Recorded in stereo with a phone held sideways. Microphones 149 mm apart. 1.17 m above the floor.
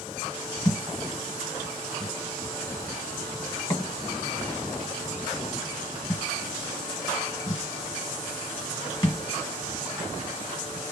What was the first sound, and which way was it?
A thud, 30° left (ahead or behind).